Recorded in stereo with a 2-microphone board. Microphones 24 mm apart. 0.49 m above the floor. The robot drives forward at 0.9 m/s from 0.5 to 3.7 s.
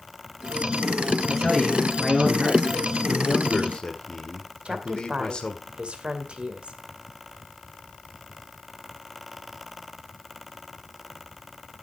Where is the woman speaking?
50° right (ahead or behind), 2 m.